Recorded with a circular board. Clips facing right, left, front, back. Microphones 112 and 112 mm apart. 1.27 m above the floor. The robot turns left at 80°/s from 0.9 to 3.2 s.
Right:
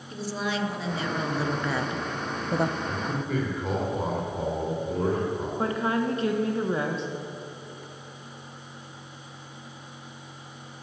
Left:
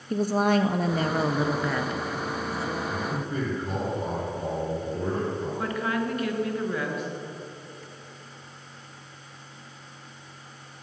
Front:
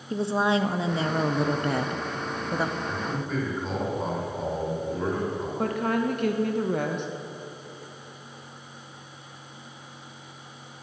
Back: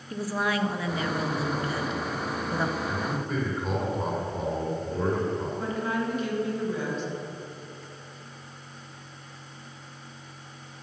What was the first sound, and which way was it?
A woman speaking, 60° left.